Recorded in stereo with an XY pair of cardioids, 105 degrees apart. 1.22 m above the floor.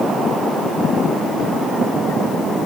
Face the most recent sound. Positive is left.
No sound to turn to.